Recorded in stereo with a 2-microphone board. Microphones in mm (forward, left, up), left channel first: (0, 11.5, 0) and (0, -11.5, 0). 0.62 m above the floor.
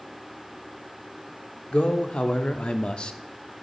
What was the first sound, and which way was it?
A man speaking, 60° left (ahead or behind).